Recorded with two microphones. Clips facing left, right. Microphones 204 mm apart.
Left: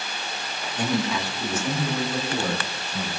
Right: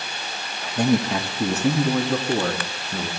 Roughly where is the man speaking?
Right.